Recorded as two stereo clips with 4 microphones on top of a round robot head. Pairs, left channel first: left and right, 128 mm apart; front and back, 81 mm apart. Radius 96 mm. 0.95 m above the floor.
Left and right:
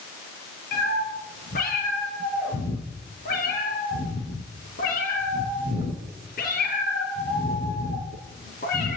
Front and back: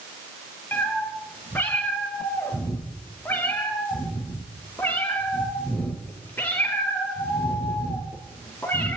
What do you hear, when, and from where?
0.7 s a cat meowing: 65° left, 5 m